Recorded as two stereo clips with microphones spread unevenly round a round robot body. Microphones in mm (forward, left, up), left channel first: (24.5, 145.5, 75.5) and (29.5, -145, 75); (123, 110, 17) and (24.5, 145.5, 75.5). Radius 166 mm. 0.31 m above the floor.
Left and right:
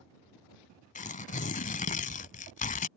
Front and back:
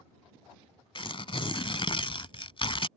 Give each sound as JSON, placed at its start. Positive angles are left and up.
{"t": 0.9, "sound": "tearing paper", "azimuth_deg": 25}